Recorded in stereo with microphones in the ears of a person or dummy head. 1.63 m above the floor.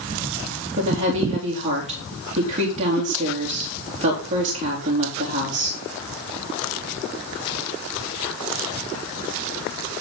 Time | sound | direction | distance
0.8 | a woman speaking | 35° right (ahead or behind) | 4 m